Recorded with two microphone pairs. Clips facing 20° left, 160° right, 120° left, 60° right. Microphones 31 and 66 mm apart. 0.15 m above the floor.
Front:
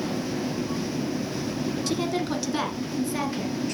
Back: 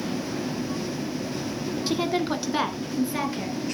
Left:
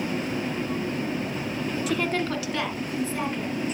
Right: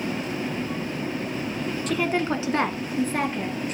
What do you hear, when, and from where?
1.9 s a woman speaking: 160° right, 1.0 m; by 3.8 s 75° right, 2.5 m